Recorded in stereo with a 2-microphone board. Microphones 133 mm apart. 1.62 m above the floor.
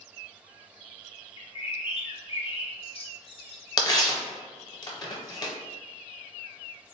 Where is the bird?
40° left (ahead or behind), 0.6 m.